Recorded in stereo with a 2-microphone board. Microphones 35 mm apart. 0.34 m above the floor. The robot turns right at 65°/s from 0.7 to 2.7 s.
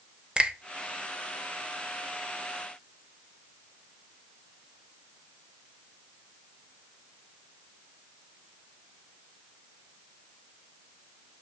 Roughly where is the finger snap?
Right.